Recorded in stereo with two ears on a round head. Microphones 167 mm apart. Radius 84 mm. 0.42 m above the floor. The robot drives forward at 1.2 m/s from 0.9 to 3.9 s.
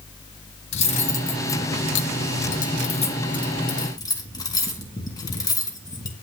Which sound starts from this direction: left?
Cutlery clinking, at 0.7 s.